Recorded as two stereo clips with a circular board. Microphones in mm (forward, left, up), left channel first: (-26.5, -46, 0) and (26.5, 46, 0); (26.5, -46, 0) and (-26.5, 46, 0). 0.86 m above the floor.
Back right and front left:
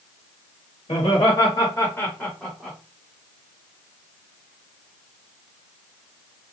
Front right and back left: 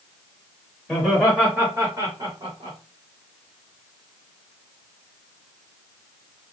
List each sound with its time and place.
0.9 s laughter: 135° right, 1.5 m; by 2.8 s 135° left, 1.4 m